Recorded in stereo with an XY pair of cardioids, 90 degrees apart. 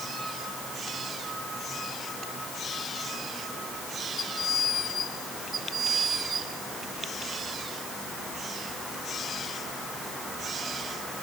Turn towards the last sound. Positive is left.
No sound to turn to.